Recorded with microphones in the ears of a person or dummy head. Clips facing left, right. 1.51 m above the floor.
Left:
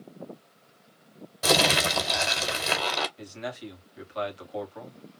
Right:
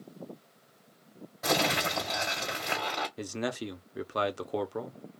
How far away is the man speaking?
About 0.8 m.